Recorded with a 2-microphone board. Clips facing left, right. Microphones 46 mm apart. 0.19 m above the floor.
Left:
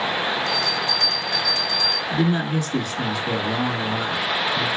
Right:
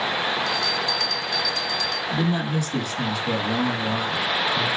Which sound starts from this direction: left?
A bell, at 0.5 s.